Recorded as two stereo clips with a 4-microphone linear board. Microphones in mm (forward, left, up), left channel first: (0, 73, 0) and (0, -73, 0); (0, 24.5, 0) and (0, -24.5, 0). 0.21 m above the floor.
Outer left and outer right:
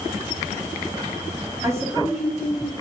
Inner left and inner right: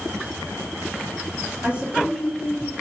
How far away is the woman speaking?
About 1.1 m.